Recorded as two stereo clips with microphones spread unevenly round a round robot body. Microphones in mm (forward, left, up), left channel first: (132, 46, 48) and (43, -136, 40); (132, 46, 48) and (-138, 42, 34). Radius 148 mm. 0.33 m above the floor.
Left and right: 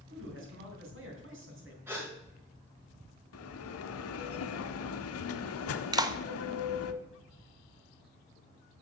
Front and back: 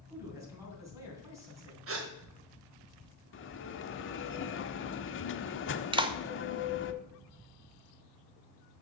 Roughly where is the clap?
Behind right.